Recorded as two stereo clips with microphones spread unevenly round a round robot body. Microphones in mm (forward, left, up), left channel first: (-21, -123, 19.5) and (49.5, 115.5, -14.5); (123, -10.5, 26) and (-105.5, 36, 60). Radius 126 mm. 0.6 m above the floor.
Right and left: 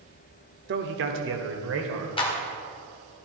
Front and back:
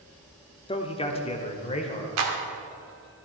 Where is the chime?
I don't hear a chime.